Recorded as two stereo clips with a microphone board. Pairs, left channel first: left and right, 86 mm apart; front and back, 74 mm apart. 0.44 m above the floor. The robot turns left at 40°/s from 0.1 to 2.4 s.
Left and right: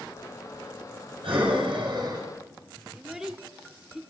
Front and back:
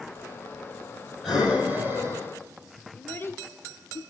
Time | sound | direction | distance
1.2 | breathing | 95° right | 6 m
3.0 | a child speaking | 15° right | 0.9 m